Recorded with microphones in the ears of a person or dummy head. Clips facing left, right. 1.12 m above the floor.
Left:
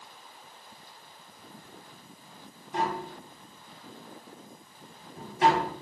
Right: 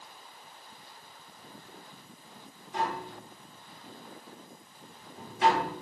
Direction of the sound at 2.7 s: 35° left (ahead or behind).